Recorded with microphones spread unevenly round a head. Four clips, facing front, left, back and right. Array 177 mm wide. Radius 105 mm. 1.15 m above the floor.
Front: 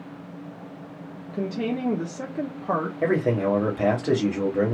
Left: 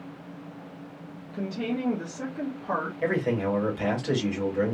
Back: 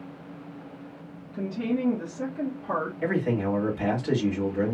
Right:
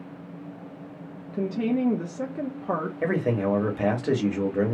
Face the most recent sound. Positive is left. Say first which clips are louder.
# right 2 dB, front 5 dB
turn(degrees=-60)